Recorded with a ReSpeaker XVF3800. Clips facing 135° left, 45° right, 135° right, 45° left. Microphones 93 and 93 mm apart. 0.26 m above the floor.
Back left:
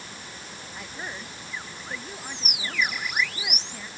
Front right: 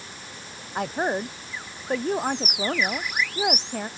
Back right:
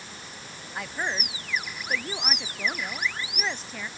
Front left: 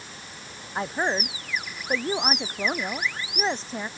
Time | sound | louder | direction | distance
0.8 | a woman speaking | front right 14 dB, front left 6 dB | 15° right | ?